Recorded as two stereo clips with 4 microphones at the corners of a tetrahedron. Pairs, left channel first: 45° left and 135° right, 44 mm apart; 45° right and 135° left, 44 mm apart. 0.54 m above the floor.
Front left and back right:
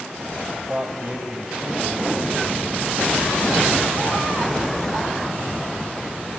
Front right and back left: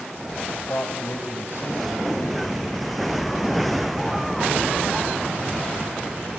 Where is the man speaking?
80° right, 2.5 m; by 2.6 s 50° right, 3 m.